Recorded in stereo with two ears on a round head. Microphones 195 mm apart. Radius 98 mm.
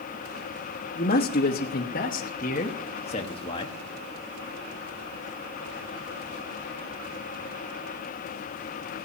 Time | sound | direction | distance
0.9 | a man speaking | 50° left (ahead or behind) | 1.4 m